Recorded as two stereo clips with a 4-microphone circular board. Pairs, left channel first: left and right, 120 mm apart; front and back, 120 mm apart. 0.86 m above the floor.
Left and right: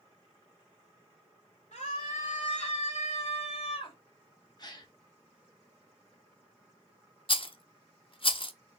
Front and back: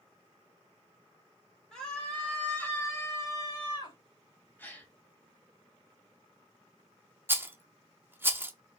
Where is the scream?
85° left, 2.5 m; by 4.0 s 45° left, 1.5 m.